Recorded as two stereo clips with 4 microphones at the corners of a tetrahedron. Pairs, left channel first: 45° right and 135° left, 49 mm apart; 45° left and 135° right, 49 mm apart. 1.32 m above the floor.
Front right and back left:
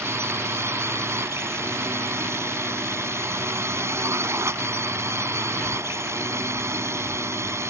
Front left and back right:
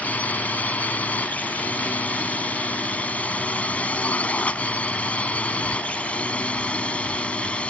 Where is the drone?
105° left; by 7.7 s 115° left.